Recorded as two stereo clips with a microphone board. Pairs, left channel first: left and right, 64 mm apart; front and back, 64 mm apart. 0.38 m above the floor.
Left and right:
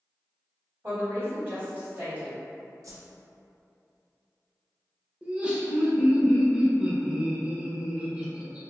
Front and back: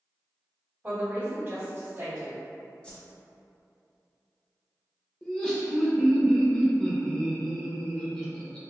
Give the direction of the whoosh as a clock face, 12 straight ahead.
2 o'clock.